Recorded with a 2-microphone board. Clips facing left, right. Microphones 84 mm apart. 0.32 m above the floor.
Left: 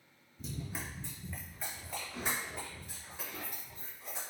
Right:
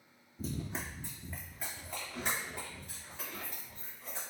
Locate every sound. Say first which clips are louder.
0.4 s running footsteps: right 3 dB; 45° right (ahead or behind), 0.6 m; by 4.2 s 5° left (ahead or behind), 4 m